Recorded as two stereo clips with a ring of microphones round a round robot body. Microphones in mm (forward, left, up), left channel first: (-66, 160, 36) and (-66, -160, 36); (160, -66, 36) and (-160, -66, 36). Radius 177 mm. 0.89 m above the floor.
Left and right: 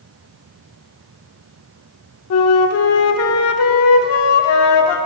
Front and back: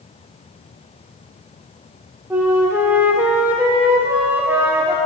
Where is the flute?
100° left, 0.5 m.